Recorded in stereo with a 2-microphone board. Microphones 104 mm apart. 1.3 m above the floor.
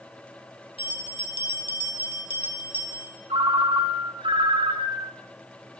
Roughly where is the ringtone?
Right.